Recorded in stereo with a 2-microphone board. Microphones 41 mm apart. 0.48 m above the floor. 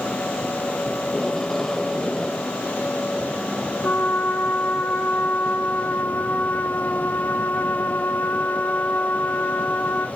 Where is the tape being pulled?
10° left (ahead or behind), 2 m.